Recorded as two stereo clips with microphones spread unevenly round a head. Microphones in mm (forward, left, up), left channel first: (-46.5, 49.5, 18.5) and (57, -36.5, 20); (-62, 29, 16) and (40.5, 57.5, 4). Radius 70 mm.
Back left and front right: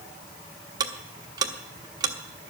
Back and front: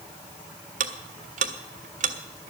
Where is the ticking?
25° left, 1.2 m.